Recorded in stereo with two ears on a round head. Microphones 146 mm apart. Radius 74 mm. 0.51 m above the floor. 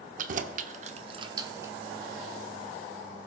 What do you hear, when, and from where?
0.2 s keys jangling: 50° right (ahead or behind), 0.7 m; by 1.7 s 15° right (ahead or behind), 0.8 m